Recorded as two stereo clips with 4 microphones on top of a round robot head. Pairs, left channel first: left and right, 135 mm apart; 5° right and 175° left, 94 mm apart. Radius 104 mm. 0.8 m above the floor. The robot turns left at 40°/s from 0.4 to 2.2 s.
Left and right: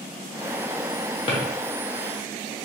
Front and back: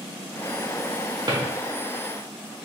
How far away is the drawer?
About 0.7 m.